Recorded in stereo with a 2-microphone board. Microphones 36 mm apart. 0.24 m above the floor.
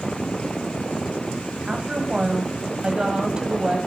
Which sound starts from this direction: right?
A woman speaking, at 1.7 s.